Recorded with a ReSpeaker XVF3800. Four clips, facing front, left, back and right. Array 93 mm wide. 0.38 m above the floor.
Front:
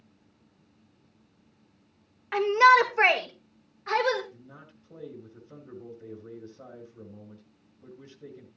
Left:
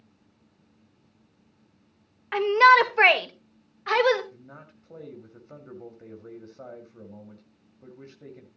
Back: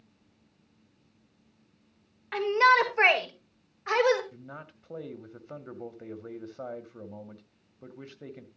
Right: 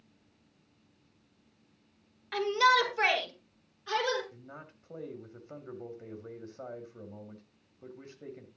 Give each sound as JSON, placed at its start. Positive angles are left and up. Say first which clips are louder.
{"t": 2.3, "sound": "a shout", "louder": "left 9 dB, front 3 dB", "azimuth_deg": 65, "distance_m": 1.4}
{"t": 4.3, "sound": "a man speaking", "louder": "left 1 dB, back 5 dB", "azimuth_deg": -175, "distance_m": 2.0}